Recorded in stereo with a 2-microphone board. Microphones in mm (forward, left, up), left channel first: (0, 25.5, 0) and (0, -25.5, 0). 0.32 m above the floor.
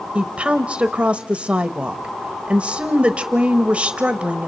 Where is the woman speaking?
25° right (ahead or behind), 1.0 m.